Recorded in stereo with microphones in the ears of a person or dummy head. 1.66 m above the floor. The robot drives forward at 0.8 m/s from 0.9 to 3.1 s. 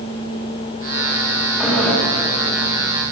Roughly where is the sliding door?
Centre.